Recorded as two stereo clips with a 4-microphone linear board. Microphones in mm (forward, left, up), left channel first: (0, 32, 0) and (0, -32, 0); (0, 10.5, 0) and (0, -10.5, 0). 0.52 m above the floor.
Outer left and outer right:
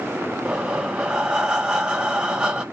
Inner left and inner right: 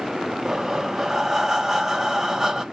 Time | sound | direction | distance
0.5 | breathing | 15° right (ahead or behind) | 1.0 m